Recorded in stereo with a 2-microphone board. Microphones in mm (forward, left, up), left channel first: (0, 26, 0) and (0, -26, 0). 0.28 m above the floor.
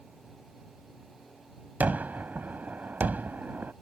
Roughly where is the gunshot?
Right.